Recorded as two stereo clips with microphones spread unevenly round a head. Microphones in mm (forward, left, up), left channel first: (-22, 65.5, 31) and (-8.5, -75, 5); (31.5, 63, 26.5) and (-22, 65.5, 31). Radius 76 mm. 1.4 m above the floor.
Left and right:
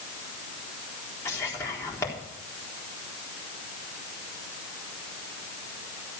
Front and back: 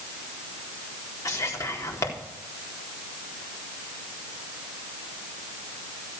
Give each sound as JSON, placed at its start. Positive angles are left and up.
{"t": 1.2, "sound": "whispering", "azimuth_deg": 25, "distance_m": 4.0}